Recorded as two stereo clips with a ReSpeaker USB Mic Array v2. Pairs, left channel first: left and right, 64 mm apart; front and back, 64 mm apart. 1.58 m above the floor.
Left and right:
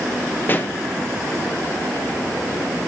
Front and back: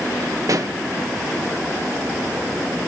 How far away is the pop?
About 1.1 m.